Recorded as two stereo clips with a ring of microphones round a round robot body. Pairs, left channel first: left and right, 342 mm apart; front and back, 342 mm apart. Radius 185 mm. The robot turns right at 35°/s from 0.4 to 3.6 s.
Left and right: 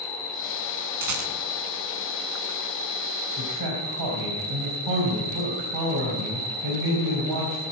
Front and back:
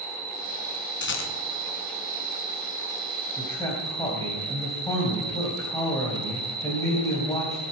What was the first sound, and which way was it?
An insect, 145° left.